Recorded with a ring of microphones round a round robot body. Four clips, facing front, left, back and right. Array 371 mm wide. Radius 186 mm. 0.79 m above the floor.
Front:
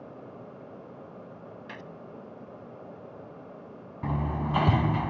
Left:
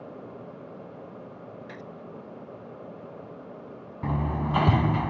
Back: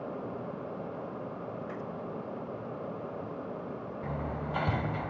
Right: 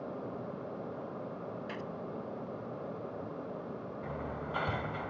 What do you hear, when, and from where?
1.7 s a gunshot: 5° right
4.0 s hammering: 60° left